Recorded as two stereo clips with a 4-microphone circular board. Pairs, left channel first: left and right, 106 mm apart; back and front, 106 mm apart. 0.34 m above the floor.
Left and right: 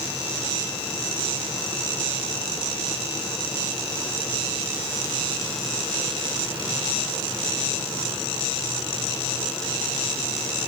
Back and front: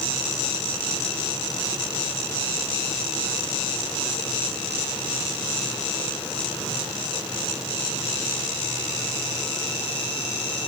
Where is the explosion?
No explosion in this recording.